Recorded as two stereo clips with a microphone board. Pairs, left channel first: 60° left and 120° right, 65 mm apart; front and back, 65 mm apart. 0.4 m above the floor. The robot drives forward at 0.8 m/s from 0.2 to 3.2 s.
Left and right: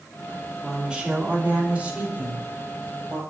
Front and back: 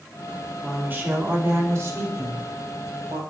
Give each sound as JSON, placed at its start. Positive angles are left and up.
{"t": 0.6, "sound": "a woman speaking", "azimuth_deg": -175, "distance_m": 1.4}